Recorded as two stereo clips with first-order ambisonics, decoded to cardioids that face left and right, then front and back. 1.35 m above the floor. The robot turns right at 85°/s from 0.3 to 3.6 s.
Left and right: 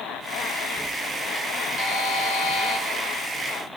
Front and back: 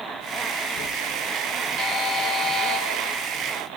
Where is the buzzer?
60° left, 3 m; by 2.8 s 150° left, 3 m.